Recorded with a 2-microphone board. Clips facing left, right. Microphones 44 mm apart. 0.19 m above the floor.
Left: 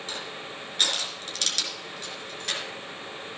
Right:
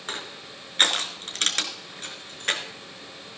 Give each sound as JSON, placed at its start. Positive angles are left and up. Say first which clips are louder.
{"t": 0.1, "sound": "crushing", "louder": "right 3 dB", "side_deg": -50, "distance_m": 2.0}